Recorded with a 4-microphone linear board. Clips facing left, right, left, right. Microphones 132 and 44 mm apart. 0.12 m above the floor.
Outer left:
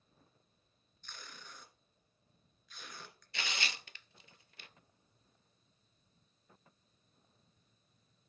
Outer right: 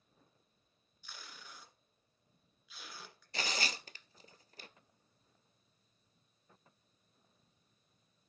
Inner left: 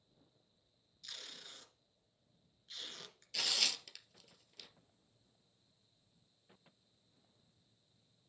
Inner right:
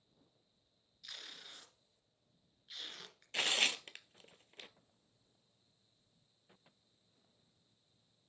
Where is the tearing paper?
40° right (ahead or behind), 0.5 m.